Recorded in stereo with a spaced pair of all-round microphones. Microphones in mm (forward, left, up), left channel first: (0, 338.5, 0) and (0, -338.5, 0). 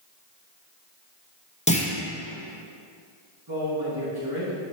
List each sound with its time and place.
1.7 s a clunk: 10° left (ahead or behind), 0.8 m
3.5 s a man speaking: 30° right (ahead or behind), 2 m